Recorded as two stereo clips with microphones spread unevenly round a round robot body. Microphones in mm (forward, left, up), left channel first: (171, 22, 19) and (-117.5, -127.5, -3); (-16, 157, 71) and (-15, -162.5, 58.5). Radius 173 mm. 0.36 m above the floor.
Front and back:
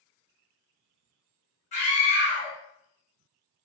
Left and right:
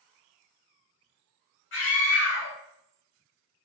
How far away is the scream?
About 1.4 m.